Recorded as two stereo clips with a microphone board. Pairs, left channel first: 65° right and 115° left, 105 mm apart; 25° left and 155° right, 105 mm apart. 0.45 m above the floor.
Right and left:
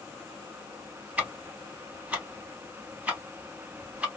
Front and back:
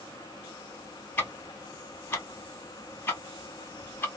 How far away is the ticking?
About 1.0 m.